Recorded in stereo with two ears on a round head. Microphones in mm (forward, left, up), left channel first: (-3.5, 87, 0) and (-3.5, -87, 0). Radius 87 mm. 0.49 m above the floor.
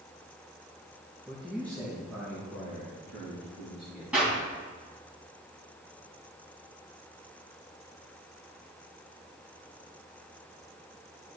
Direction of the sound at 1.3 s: Centre (ahead or behind).